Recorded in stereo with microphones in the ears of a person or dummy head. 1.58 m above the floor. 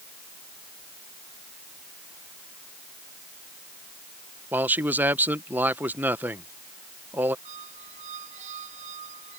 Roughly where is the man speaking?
Centre.